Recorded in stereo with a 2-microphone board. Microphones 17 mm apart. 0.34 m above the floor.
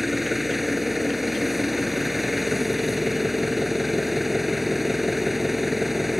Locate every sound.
0.0 s an engine running: 5° right (ahead or behind)